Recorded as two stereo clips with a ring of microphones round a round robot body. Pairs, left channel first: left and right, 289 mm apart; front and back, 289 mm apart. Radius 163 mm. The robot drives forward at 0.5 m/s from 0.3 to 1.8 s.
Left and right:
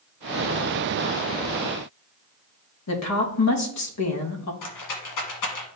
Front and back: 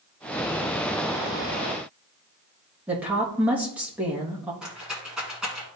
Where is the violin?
No violin in this recording.